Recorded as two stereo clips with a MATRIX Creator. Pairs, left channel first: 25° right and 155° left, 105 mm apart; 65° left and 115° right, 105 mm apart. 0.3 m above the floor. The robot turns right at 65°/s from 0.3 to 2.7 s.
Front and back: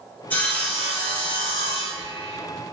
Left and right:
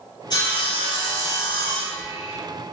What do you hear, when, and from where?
0.3 s sawing: 40° left, 1.8 m; by 2.4 s 175° left, 1.8 m